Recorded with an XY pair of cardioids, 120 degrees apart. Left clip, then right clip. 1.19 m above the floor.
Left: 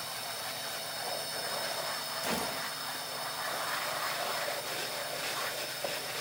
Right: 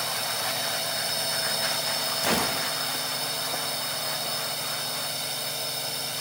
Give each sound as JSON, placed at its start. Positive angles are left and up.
{"t": 0.0, "sound": "a drone", "azimuth_deg": -55}
{"t": 2.2, "sound": "a gunshot", "azimuth_deg": -50}